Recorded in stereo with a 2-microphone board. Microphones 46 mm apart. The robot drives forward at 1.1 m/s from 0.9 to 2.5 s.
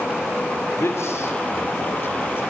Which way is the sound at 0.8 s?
70° left (ahead or behind).